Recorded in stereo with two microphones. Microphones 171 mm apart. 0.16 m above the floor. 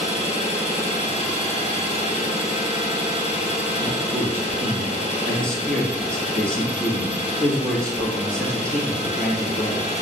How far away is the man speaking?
About 3.5 m.